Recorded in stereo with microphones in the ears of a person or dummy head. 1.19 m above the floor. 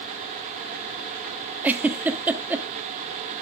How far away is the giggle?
About 1.2 m.